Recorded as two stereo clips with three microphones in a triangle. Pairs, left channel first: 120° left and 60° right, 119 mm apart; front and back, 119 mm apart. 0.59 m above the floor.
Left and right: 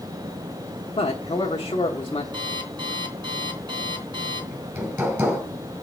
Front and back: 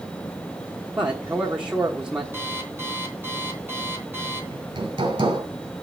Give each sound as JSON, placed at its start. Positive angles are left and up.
{"t": 1.0, "sound": "a man speaking", "azimuth_deg": 100, "distance_m": 1.2}
{"t": 2.3, "sound": "an alarm clock", "azimuth_deg": -110, "distance_m": 3.5}
{"t": 4.5, "sound": "hammering", "azimuth_deg": -130, "distance_m": 3.5}